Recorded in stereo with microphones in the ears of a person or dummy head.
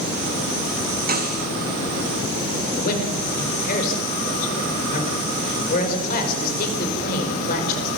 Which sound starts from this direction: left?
A man speaking, at 2.8 s.